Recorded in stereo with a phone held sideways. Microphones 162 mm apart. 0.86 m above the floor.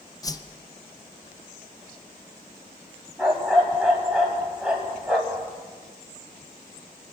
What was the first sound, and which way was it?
A whoosh, 25° left (ahead or behind).